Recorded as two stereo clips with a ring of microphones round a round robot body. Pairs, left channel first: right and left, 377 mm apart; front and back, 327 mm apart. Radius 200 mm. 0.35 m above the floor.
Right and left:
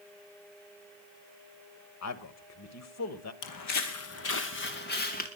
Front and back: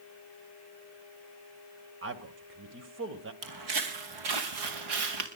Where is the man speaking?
130° right, 1.5 m.